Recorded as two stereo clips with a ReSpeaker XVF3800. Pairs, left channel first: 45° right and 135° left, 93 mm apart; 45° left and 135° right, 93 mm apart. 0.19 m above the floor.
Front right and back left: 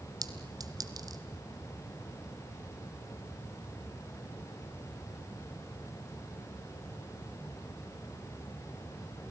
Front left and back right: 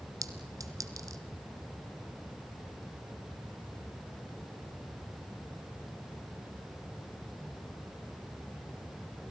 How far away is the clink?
About 1.4 m.